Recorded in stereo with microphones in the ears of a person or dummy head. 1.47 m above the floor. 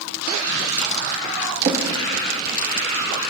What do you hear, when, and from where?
1.6 s a drawer: 30° right (ahead or behind), 1.3 m